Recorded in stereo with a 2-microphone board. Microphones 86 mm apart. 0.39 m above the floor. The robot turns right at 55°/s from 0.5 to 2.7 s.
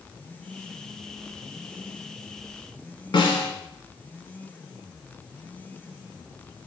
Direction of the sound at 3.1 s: 70° left (ahead or behind).